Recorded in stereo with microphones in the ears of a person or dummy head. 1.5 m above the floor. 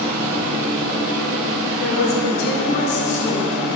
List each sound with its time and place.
0.0 s a machine running: 65° left (ahead or behind), 1.8 m
1.8 s a woman speaking: 65° left (ahead or behind), 1.4 m